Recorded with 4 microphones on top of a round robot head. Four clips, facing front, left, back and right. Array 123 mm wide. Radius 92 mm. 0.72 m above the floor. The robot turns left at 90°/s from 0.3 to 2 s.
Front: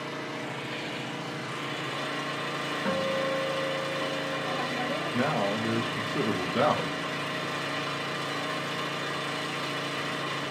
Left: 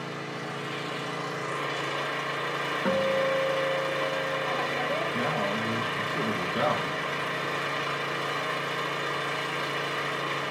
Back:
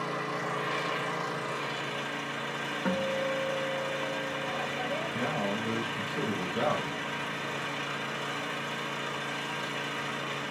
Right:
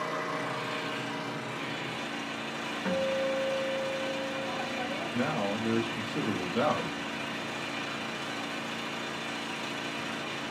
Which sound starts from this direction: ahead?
A man speaking, at 5.1 s.